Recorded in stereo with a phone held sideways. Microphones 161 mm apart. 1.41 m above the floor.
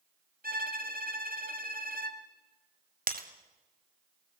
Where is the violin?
65° right (ahead or behind), 2.5 m.